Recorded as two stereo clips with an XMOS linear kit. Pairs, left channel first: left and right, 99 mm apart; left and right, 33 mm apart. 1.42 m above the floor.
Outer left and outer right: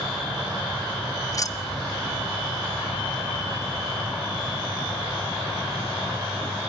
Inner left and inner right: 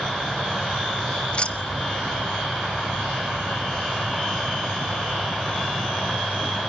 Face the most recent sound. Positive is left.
turn(degrees=35)  # may be behind; listen again after turning